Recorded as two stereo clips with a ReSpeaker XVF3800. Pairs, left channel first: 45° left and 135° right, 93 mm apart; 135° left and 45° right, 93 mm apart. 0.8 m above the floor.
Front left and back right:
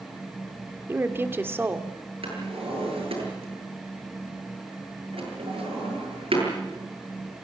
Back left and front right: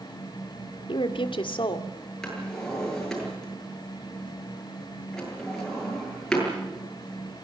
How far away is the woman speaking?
About 1.8 m.